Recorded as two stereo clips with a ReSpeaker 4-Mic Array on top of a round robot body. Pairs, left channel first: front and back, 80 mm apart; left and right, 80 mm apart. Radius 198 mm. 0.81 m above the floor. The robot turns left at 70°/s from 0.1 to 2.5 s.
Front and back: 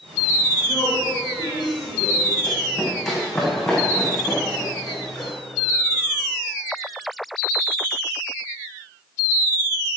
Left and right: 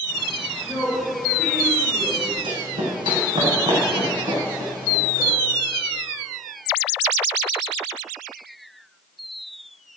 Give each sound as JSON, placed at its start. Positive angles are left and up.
{"t": 0.6, "sound": "a woman speaking", "azimuth_deg": 45, "distance_m": 4.5}
{"t": 2.4, "sound": "running footsteps", "azimuth_deg": -85, "distance_m": 4.0}